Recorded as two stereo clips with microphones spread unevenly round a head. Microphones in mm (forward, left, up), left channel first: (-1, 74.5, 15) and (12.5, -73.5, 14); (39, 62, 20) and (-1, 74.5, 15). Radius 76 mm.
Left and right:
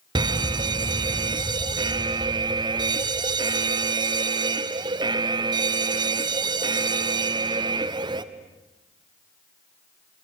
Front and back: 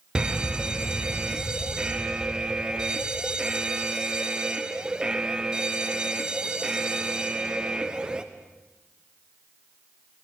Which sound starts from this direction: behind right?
A fire alarm, at 0.1 s.